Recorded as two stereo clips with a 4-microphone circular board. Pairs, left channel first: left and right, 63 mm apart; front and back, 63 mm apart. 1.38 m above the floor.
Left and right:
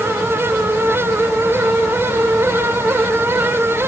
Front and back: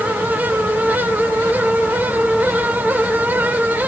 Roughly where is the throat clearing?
No throat clearing in this recording.